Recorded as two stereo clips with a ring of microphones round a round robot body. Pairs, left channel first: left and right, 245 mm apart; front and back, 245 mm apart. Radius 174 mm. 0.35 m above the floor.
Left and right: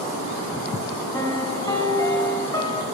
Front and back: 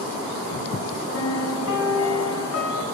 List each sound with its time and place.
1.1 s a piano: 15° left, 3 m